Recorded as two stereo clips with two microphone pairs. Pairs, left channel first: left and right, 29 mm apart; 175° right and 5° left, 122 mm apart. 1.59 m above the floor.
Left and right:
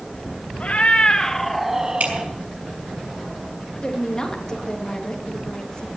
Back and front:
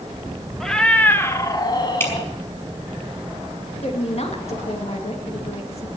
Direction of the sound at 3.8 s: 150° left.